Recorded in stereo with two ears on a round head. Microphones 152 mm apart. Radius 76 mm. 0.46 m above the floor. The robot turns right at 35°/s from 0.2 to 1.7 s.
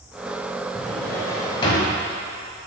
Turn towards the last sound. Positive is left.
turn(degrees=30)